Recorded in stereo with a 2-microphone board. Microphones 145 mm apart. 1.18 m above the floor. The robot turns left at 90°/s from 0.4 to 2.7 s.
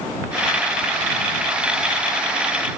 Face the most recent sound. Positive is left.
No sound to turn to.